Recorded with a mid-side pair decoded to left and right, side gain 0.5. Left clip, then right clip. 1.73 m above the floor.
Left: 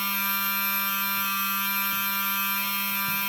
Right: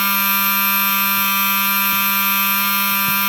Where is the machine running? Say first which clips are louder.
Right 10 dB; 55° right, 1.3 m.